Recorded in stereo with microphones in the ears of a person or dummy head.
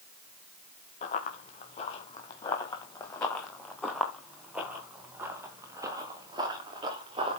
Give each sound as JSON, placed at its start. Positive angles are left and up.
{"t": 1.0, "sound": "running footsteps", "side_deg": 55, "distance_m": 4.0}